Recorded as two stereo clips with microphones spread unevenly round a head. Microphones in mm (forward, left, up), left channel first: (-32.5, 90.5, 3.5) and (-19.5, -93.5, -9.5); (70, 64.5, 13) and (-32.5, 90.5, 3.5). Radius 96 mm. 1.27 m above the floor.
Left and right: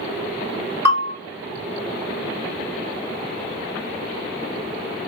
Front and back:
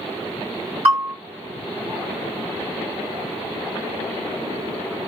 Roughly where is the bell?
Behind left.